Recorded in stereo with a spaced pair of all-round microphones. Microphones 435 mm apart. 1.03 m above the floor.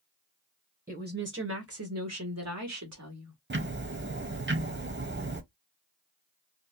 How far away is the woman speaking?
About 0.8 m.